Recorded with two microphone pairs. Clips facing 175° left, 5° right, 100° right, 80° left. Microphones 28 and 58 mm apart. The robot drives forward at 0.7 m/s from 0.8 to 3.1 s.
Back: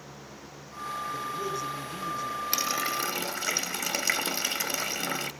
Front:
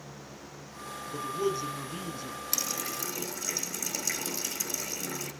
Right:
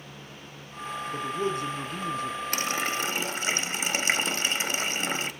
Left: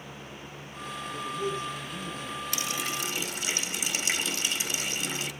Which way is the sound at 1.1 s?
75° right.